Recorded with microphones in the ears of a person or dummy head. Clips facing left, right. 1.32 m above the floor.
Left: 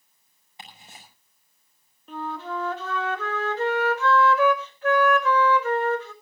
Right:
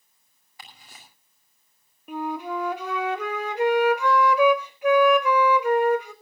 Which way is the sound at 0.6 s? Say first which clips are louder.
Left 2 dB; 20° left (ahead or behind).